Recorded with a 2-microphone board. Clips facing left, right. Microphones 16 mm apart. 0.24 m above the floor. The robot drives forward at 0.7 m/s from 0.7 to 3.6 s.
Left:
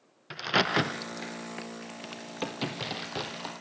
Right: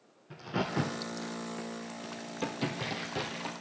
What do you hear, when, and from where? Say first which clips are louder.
0.3 s a crack: left 8 dB; 65° left (ahead or behind), 0.7 m; by 3.5 s 15° left (ahead or behind), 2.5 m